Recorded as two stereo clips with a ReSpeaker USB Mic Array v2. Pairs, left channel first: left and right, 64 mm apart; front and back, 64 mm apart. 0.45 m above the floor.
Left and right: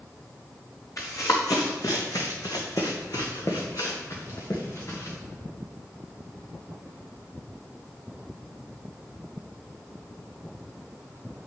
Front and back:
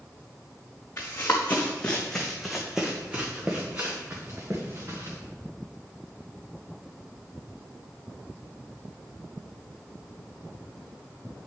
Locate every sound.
1.0 s running footsteps: 55° left, 2 m; by 5.2 s 135° left, 3 m